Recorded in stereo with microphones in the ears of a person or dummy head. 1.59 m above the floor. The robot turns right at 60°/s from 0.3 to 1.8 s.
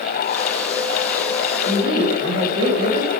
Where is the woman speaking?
40° right (ahead or behind), 1.5 m; by 3.1 s 30° right (ahead or behind), 1.5 m.